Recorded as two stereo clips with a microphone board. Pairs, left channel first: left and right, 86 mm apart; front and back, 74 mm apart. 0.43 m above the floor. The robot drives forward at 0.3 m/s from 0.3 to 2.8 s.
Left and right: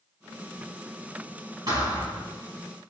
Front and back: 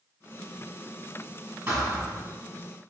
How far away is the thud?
About 1.8 m.